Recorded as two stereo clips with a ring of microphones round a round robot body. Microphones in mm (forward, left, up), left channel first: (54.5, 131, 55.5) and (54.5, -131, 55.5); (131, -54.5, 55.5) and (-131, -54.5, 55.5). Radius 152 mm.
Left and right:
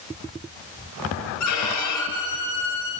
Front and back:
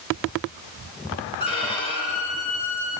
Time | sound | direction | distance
1.4 | a violin | 75° left | 6.5 m